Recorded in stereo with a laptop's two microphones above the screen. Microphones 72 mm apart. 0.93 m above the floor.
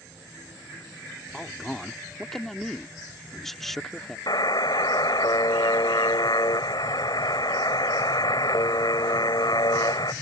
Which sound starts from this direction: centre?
A man speaking, at 1.3 s.